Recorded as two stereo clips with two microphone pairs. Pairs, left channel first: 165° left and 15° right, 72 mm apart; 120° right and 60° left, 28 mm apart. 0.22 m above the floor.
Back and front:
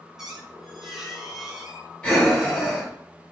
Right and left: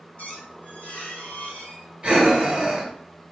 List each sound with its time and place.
0.2 s a squeak: 105° right, 0.8 m
2.0 s breathing: 95° left, 1.0 m